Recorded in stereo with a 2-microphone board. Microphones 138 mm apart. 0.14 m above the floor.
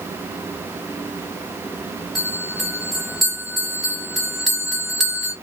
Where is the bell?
Centre (ahead or behind), 1.9 m.